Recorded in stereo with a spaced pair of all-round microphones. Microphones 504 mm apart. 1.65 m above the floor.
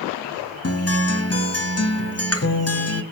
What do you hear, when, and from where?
0.6 s a guitar: 30° left (ahead or behind), 0.7 m